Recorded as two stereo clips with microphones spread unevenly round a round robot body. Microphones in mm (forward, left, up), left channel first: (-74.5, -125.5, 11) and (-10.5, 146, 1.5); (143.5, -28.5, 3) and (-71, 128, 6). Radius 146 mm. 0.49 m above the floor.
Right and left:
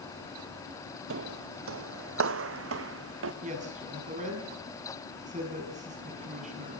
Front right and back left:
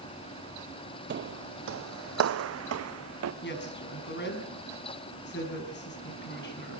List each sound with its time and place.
1.1 s footsteps: 105° left, 0.7 m; by 3.3 s 115° left, 2.0 m
3.4 s a woman speaking: 10° left, 5 m